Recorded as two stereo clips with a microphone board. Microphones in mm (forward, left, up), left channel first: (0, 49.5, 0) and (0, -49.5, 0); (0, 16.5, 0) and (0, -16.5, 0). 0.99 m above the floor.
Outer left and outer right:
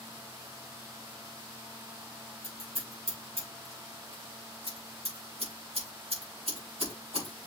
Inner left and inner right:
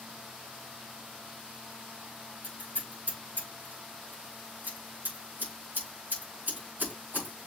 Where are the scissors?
85° right, 5 m.